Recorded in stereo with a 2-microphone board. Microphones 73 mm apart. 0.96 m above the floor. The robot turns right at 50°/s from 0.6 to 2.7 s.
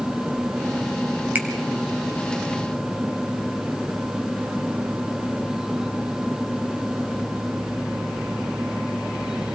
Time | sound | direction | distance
1.4 | a finger snap | 25° right (ahead or behind) | 3.5 m